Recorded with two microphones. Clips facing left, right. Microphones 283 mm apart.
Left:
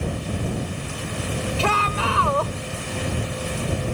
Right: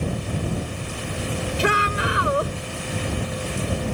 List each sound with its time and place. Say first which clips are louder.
1.6 s a shout: right 2 dB; 20° right (ahead or behind)